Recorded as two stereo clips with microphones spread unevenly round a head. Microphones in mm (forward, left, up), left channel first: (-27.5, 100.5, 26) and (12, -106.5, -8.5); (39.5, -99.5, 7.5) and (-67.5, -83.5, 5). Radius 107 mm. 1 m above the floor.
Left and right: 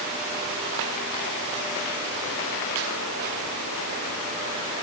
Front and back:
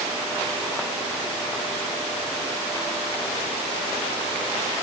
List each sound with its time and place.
Only background noise.